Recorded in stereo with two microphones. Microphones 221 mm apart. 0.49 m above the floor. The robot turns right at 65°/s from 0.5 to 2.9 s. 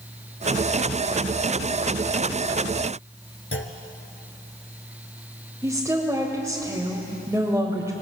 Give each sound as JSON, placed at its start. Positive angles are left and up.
{"t": 3.5, "sound": "a clunk", "side_deg": 80, "distance_m": 1.3}
{"t": 5.6, "sound": "a woman speaking", "side_deg": -15, "distance_m": 1.9}